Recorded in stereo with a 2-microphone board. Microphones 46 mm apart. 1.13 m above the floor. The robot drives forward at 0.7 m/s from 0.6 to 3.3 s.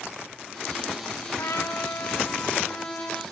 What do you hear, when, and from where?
1.4 s a trumpet: 80° left, 1.0 m; by 3.2 s 40° left (ahead or behind), 1.5 m